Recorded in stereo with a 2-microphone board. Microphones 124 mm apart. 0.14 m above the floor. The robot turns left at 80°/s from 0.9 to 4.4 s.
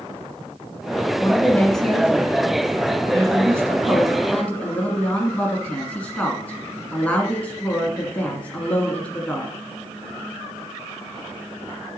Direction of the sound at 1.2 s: 20° left (ahead or behind).